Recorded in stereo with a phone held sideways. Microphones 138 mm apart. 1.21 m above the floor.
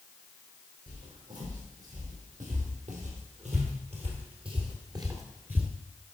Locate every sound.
0.9 s footsteps: 70° right (ahead or behind), 3.5 m; by 5.7 s 10° right (ahead or behind), 1.1 m